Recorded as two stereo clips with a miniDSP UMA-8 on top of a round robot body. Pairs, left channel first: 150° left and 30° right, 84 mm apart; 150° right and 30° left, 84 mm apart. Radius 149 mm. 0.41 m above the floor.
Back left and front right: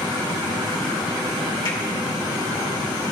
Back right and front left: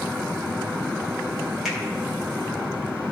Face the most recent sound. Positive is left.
turn(degrees=120)